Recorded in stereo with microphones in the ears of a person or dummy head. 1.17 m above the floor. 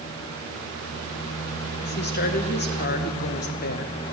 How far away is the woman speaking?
About 1.1 m.